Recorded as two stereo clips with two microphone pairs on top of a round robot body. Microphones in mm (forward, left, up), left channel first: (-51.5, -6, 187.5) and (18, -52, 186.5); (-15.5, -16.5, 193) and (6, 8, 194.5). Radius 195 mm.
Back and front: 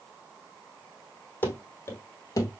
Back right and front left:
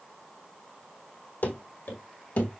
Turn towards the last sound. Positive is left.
turn(degrees=-165)